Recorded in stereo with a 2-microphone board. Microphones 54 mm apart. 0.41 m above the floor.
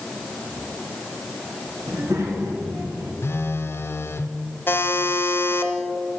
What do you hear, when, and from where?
1.9 s a child speaking: 75° right (ahead or behind), 3 m; by 3.1 s 60° right (ahead or behind), 2.5 m
3.2 s a phone buzzing: 50° left (ahead or behind), 0.6 m
4.7 s a buzzer: 45° left (ahead or behind), 1.1 m